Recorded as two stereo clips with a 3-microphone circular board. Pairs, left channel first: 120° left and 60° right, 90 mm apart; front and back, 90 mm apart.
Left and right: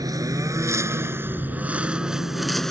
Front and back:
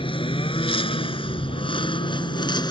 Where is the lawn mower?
15° right; by 2.7 s 35° left.